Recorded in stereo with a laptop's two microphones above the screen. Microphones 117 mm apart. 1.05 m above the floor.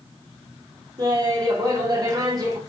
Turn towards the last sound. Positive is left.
turn(degrees=-35)  # may be behind; listen again after turning